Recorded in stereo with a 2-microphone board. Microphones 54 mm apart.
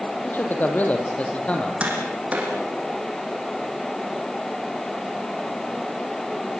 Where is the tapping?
25° right (ahead or behind), 7.5 m.